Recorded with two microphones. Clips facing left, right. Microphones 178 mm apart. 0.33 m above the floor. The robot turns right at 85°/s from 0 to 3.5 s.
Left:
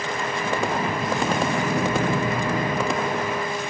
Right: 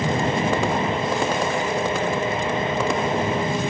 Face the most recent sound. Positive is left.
turn(degrees=-40)  # may be behind; listen again after turning